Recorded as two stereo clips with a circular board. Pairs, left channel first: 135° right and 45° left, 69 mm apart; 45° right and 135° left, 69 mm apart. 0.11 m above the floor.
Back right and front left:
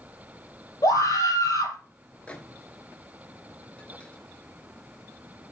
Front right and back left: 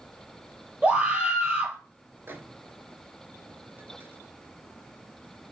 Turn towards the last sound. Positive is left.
turn(degrees=165)